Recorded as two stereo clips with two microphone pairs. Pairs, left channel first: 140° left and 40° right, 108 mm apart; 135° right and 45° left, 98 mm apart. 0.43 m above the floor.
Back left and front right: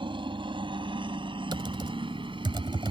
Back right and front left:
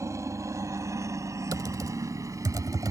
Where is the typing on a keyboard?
5° right.